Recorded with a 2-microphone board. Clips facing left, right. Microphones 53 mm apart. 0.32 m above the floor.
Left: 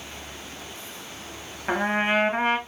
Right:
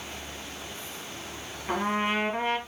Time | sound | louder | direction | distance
1.7 | a trumpet | left 4 dB | 50° left (ahead or behind) | 4.5 m